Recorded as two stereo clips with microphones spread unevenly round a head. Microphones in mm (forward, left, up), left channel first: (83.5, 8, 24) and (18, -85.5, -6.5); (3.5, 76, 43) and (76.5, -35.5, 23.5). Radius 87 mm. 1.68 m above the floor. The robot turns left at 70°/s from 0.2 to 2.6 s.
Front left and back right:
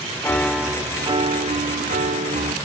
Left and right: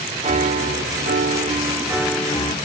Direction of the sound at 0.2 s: 15° right.